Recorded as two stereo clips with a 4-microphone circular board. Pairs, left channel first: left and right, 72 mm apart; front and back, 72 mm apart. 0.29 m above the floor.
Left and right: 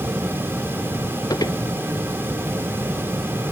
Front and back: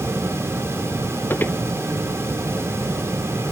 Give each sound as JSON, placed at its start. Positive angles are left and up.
{"t": 1.3, "sound": "footsteps", "azimuth_deg": 65}